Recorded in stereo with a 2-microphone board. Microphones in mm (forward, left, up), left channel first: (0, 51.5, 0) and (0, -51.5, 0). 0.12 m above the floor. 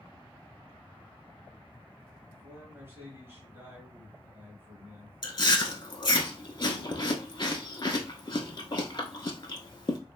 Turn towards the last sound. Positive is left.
turn(degrees=45)  # may be behind; listen again after turning